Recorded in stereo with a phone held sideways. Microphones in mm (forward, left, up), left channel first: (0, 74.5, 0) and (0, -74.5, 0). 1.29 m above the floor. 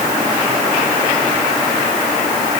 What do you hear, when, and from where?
Only background noise.